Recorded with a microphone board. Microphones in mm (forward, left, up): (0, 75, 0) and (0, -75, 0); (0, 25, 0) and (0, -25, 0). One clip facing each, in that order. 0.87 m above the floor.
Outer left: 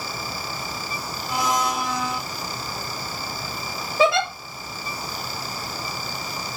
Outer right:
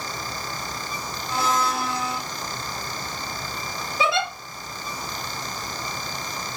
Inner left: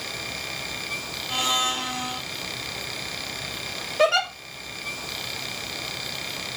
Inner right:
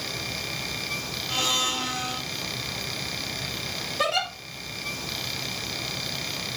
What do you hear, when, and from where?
1.3 s a blender: 15° left (ahead or behind), 1.8 m
4.0 s a giggle: 50° left (ahead or behind), 4 m